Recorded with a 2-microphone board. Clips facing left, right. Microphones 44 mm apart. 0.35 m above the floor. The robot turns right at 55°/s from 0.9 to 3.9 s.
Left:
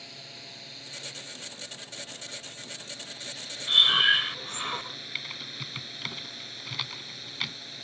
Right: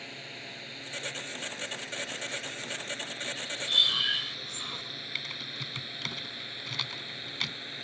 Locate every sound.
0.0 s a drone: 30° right (ahead or behind)
3.7 s breathing: 45° left (ahead or behind)
5.2 s typing on a keyboard: 5° left (ahead or behind)